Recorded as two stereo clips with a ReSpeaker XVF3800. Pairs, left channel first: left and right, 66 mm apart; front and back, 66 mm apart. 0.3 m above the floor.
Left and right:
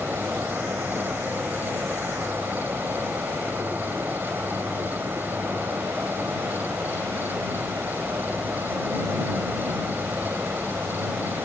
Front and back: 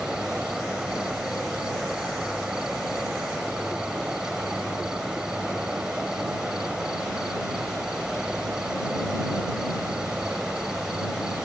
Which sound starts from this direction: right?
An insect, at 0.0 s.